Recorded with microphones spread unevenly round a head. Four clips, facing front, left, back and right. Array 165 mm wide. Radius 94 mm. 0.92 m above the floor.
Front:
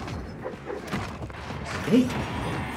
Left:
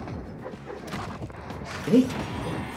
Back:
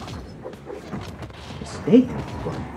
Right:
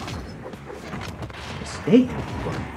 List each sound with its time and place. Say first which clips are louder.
1.6 s a man speaking: right 4 dB, back 6 dB; 175° right, 0.7 m